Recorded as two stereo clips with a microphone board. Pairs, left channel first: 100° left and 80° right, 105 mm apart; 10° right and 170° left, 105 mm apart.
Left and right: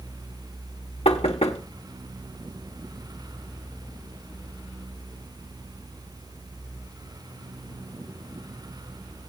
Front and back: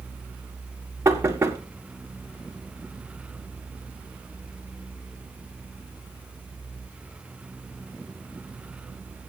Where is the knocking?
110° left, 1.5 m.